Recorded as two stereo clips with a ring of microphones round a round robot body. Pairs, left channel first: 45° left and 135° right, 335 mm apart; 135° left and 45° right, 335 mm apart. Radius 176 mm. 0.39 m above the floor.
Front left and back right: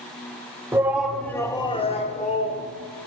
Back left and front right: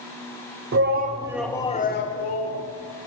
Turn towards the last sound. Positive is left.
turn(degrees=110)